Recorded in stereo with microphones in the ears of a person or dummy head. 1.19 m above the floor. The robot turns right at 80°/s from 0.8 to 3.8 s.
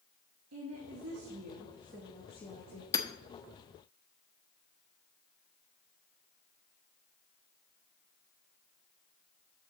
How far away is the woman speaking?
About 1.9 m.